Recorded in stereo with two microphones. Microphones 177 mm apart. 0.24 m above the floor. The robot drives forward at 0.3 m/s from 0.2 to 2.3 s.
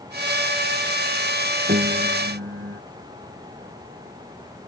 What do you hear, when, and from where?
1.7 s a piano: 60° right (ahead or behind)